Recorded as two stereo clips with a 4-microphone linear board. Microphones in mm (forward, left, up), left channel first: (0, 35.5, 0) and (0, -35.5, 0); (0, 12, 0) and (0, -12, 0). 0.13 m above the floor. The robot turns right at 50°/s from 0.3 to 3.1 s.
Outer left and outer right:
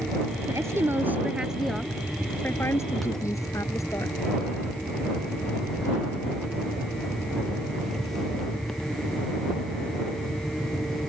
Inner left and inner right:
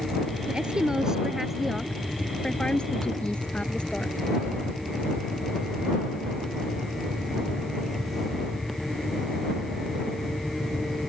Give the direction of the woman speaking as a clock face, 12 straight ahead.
2 o'clock.